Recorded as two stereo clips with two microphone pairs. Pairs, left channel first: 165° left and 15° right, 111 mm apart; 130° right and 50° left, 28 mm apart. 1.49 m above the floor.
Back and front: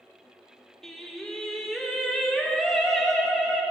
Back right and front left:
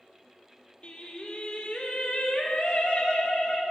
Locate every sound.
0.8 s singing: 110° right, 1.5 m